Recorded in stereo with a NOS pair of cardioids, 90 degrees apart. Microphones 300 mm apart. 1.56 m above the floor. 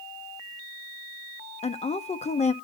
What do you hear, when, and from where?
1.6 s a woman speaking: 20° left, 0.9 m